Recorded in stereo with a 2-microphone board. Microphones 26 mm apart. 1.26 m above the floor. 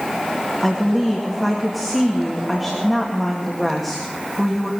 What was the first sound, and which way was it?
A woman speaking, centre (ahead or behind).